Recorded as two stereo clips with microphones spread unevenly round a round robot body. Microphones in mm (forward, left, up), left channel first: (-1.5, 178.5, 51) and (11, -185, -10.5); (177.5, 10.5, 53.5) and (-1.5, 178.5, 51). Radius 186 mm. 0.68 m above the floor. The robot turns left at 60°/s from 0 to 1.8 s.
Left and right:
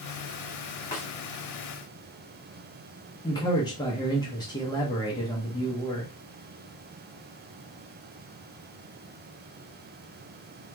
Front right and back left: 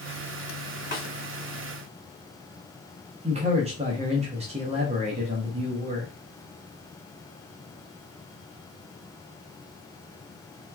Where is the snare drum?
10° left, 1.8 m; by 1.1 s straight ahead, 1.8 m.